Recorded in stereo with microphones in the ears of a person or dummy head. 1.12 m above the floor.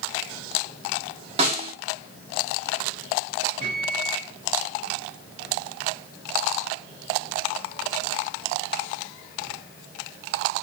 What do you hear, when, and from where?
1.4 s a snare drum: 35° right (ahead or behind), 2.5 m
3.6 s a microwave: 60° right (ahead or behind), 2.5 m